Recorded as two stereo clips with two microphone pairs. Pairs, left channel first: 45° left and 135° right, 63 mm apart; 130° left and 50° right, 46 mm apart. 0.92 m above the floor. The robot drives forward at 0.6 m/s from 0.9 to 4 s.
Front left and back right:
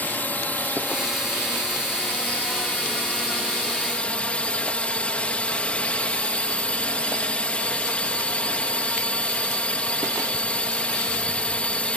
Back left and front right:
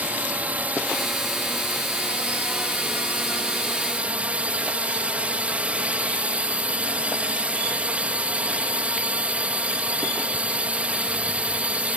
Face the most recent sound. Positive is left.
turn(degrees=-10)